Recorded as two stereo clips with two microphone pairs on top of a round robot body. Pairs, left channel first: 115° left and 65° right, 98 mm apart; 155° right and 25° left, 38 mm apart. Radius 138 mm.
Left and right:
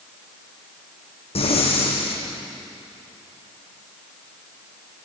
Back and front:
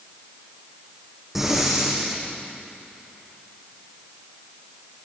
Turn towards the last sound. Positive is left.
turn(degrees=105)